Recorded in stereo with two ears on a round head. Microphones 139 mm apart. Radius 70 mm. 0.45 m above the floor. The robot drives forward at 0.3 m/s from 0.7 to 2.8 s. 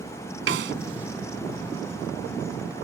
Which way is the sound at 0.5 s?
85° right.